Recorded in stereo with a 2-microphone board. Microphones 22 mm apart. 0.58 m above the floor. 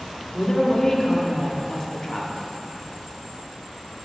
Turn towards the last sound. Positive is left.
turn(degrees=30)  # may be behind; listen again after turning